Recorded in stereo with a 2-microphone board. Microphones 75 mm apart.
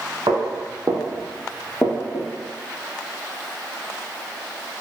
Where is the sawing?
I don't hear sawing.